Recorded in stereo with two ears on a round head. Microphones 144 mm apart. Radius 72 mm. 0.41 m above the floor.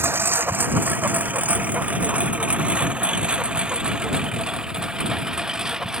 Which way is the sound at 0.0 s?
15° right (ahead or behind).